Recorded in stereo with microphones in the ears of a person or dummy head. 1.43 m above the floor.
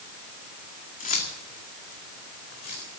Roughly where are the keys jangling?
Left.